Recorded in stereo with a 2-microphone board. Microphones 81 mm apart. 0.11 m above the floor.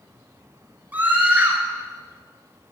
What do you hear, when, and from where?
0.9 s a scream: 20° right (ahead or behind), 1.5 m